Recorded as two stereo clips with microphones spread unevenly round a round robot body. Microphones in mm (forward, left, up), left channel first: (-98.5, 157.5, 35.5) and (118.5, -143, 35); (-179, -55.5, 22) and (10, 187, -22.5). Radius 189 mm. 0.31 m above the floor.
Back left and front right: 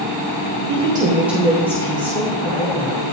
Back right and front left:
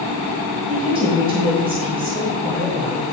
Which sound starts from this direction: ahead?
A woman speaking, at 0.7 s.